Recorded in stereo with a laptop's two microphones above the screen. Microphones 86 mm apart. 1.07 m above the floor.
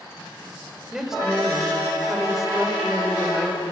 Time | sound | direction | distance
0.9 | a woman speaking | 5° right (ahead or behind) | 5 m